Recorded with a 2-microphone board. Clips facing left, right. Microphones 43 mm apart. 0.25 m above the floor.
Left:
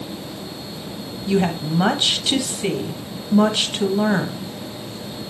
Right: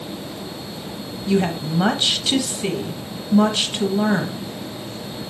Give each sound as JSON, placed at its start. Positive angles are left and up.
{"t": 1.3, "sound": "a woman speaking", "side_deg": 5, "distance_m": 1.2}